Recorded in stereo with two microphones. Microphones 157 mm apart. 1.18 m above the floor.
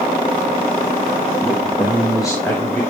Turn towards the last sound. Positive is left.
turn(degrees=0)  # may be behind; listen again after turning